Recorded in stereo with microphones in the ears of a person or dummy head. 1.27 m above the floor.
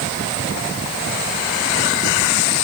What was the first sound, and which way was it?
Only background noise.